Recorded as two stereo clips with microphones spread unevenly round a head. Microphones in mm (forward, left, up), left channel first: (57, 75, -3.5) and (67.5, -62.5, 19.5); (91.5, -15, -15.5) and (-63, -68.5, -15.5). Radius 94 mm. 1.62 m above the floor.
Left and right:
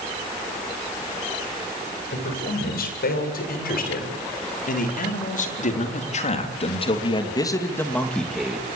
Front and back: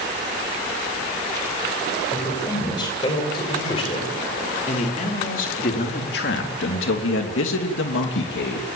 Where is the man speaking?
90° left, 8.5 m; by 8.7 s 5° right, 3 m.